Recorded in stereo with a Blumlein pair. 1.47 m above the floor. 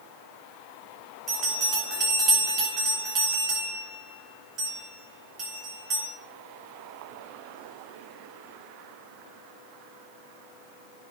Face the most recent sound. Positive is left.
turn(degrees=-30)